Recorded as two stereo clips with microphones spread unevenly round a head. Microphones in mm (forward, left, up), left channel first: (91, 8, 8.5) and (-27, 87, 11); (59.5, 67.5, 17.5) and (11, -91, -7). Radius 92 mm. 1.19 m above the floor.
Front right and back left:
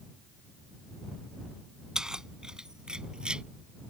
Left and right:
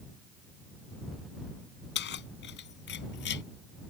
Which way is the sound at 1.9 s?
60° left.